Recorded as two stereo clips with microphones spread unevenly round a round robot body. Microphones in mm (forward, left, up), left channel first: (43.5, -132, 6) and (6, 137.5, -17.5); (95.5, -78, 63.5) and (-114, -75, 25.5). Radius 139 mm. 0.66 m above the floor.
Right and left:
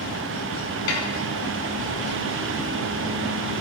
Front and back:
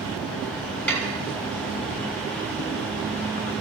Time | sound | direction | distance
0.9 | a snare drum | 85° right | 6 m